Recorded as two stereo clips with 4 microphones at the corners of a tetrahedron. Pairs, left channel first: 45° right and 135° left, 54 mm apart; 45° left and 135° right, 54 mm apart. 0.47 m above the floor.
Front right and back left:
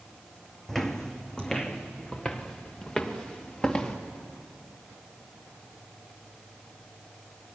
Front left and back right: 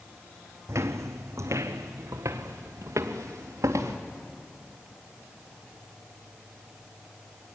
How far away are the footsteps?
About 1.0 m.